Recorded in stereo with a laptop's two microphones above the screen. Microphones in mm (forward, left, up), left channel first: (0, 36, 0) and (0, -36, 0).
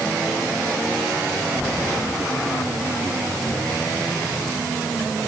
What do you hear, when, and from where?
Only background noise.